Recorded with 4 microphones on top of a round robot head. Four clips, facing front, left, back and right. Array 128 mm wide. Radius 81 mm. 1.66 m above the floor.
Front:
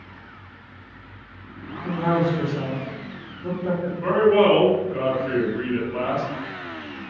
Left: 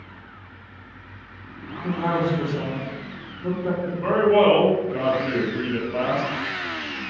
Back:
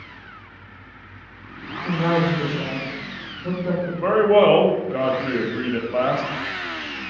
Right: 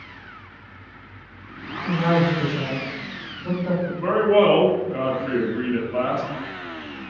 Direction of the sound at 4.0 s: 175° left.